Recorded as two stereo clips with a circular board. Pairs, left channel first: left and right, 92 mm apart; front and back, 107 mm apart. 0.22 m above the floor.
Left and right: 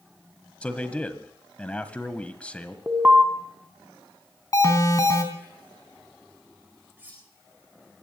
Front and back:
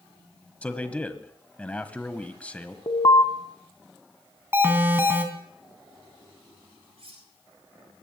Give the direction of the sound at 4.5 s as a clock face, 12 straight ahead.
8 o'clock.